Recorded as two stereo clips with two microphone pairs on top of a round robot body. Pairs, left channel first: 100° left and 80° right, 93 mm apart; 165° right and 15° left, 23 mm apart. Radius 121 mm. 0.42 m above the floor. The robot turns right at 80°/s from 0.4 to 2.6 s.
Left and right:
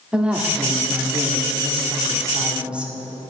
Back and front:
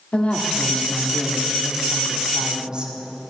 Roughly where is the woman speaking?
Behind.